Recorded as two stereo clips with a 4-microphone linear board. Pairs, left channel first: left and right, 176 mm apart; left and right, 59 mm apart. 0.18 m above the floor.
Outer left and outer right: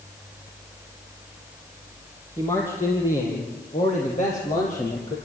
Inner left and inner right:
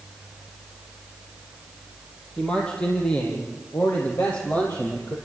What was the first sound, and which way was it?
A man speaking, 25° left (ahead or behind).